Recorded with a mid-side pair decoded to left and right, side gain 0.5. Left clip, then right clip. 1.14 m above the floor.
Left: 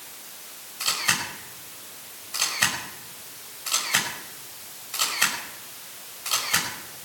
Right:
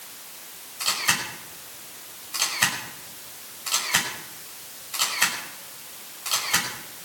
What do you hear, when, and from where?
0.8 s a camera shutter: straight ahead, 5.5 m